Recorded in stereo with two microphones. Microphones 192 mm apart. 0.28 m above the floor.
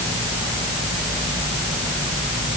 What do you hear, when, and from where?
Only background noise.